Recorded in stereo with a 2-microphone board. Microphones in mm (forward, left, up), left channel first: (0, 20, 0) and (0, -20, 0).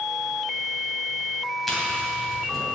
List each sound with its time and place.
1.7 s chewing: 5° left (ahead or behind), 2.5 m